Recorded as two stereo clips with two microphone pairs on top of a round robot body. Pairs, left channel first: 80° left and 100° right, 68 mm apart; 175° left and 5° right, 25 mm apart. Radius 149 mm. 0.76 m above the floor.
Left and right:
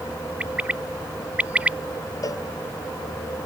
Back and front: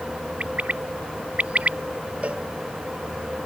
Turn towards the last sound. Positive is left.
turn(degrees=40)